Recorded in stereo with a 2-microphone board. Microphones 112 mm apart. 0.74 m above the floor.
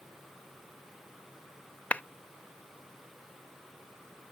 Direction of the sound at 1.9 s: 15° left (ahead or behind).